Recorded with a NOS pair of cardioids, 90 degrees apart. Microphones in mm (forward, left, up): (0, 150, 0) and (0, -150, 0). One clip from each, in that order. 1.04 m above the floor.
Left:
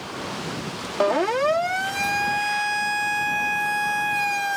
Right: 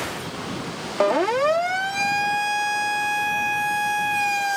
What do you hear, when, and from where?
1.0 s a siren: 5° right